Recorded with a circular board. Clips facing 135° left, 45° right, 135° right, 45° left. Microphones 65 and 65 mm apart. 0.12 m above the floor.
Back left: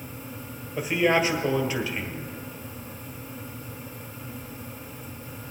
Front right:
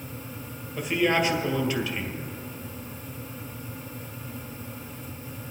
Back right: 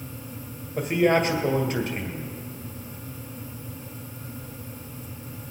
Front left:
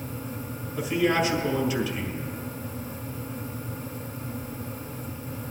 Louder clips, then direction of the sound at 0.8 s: Back left 1 dB, back right 3 dB; 150° right.